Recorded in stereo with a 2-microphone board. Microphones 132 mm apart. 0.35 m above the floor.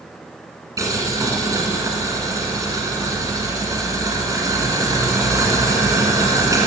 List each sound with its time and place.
0.8 s boiling: 25° right (ahead or behind), 1.3 m